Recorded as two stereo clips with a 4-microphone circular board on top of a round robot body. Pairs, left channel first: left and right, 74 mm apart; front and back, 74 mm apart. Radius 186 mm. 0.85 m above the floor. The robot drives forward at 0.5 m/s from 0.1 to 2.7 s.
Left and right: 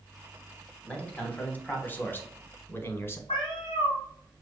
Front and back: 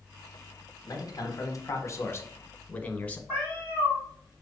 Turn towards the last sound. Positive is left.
turn(degrees=100)